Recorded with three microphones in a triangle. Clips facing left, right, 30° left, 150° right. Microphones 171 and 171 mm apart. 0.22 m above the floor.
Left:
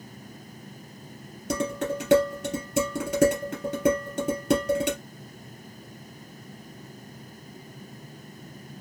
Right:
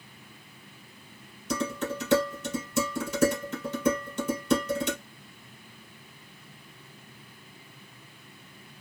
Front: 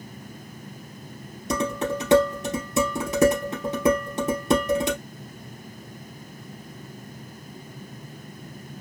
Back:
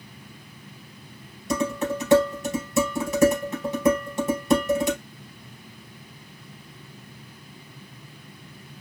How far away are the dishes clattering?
About 3 m.